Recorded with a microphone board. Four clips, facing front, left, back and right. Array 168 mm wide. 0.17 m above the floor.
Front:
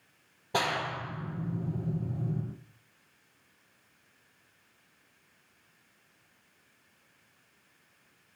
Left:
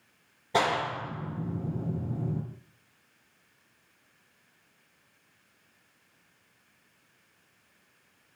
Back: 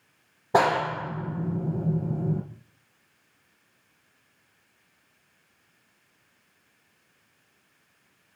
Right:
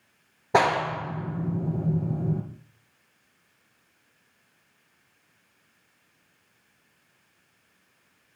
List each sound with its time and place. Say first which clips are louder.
0.5 s a clap: right 5 dB, back 9 dB; 130° right, 3.5 m